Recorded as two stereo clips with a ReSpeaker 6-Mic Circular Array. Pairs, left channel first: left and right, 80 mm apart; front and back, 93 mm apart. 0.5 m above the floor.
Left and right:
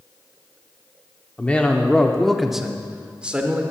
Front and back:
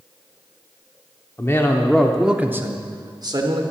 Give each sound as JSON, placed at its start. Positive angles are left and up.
{"t": 1.4, "sound": "a man speaking", "azimuth_deg": 30, "distance_m": 0.8}